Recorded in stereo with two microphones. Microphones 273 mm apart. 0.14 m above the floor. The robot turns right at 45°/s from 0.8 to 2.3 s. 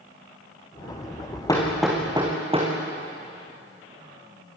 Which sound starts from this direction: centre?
Hammering, at 1.5 s.